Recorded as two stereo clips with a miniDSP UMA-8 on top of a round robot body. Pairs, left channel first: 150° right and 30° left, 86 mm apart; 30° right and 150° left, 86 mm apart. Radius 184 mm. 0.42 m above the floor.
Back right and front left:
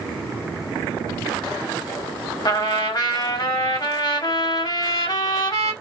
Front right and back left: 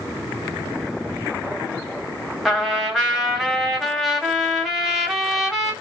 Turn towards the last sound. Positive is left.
turn(degrees=-125)